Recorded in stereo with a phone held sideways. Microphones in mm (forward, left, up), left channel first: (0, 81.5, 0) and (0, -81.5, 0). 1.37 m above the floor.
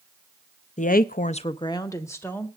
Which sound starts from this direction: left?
A woman speaking, at 0.8 s.